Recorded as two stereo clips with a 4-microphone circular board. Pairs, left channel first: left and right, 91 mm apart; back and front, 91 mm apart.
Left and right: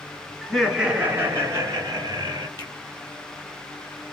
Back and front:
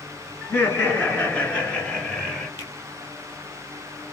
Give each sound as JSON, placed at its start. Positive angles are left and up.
{"t": 0.4, "sound": "laughter", "azimuth_deg": 165, "distance_m": 1.2}
{"t": 2.6, "sound": "a finger snap", "azimuth_deg": 130, "distance_m": 3.0}